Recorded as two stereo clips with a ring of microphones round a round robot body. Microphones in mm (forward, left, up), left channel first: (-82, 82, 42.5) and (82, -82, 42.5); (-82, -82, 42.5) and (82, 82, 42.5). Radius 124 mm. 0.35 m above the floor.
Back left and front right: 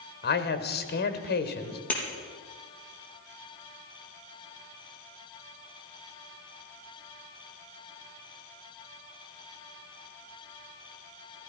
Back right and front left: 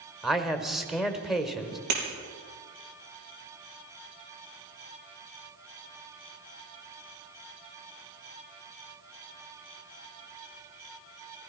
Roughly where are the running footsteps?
No running footsteps in this recording.